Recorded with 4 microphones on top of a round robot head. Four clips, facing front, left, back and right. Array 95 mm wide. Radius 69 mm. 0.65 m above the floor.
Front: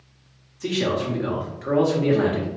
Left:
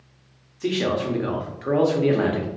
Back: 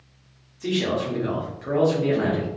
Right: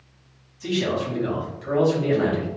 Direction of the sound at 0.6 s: 75° left.